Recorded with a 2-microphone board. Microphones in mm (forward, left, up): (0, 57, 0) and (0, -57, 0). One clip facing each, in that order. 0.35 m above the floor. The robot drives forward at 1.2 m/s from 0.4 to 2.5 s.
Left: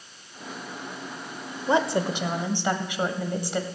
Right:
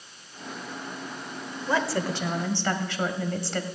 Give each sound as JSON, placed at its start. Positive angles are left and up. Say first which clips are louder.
{"t": 1.7, "sound": "a woman speaking", "louder": "left 3 dB", "side_deg": 25, "distance_m": 1.1}